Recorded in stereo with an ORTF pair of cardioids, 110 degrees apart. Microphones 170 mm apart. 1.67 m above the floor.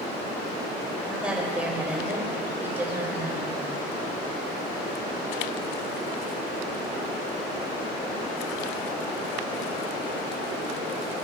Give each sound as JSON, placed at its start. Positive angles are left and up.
{"t": 1.1, "sound": "a woman speaking", "azimuth_deg": -5, "distance_m": 8.0}